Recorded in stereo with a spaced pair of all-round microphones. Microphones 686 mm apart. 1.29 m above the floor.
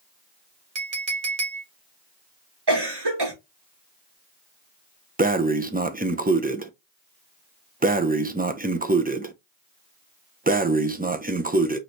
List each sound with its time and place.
0.8 s a clink: 60° right (ahead or behind), 1.7 m
2.7 s a cough: 35° right (ahead or behind), 2 m
5.2 s breathing: 15° right (ahead or behind), 0.5 m